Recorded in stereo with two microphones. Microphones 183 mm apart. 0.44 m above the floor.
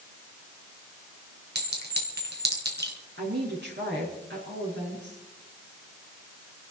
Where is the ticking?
I don't hear ticking.